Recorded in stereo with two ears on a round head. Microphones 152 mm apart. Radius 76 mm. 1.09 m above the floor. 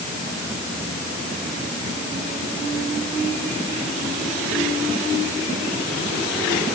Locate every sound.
Only background noise.